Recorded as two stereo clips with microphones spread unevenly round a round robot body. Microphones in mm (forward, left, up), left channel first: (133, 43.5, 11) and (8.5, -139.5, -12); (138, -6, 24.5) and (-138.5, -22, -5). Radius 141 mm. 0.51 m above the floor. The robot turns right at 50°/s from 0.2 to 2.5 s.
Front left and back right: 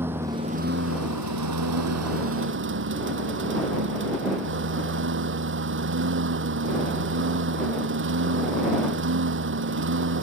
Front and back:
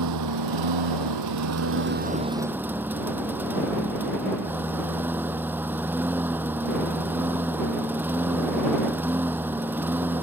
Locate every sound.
0.0 s a lawn mower: 150° left; by 10.2 s 95° right